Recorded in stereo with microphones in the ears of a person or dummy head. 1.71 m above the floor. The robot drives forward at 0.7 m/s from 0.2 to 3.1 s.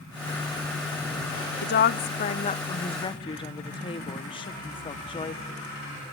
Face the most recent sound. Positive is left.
turn(degrees=20)  # may be behind; listen again after turning